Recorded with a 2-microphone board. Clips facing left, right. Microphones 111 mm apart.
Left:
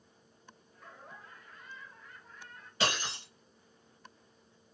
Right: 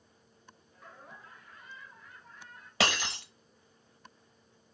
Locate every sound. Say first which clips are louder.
0.7 s laughter: even; centre (ahead or behind), 1.4 m
2.8 s breaking glass: right 2 dB; 85° right, 0.9 m